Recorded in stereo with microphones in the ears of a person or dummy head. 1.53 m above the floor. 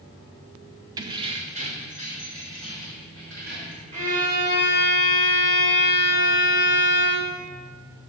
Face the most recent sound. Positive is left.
turn(degrees=-35)  # may be behind; listen again after turning